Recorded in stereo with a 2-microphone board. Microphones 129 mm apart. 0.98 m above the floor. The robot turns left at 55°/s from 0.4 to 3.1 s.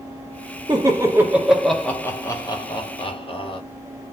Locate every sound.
0.7 s laughter: 35° right (ahead or behind), 1.1 m; by 3.6 s 45° left (ahead or behind), 1.1 m